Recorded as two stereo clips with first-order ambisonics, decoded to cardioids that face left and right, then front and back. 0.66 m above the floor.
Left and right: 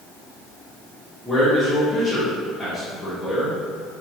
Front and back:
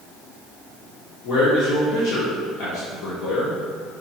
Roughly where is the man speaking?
Ahead.